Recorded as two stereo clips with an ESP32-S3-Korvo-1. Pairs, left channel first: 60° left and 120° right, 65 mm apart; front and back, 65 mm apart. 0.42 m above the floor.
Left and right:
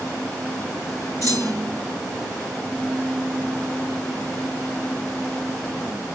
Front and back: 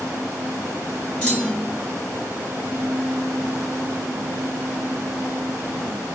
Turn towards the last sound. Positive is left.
turn(degrees=75)